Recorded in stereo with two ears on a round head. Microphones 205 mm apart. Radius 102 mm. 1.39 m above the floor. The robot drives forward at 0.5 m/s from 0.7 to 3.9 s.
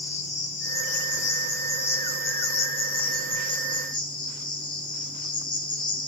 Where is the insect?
30° left (ahead or behind), 1.5 m; by 6.1 s 20° left (ahead or behind), 2 m.